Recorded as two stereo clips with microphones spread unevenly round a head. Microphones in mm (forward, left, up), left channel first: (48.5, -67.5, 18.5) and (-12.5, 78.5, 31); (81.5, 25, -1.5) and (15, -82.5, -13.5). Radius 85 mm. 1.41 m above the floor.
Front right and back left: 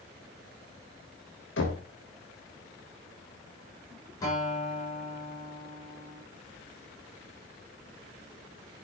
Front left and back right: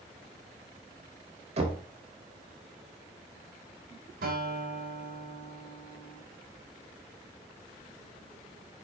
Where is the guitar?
140° right, 6 m.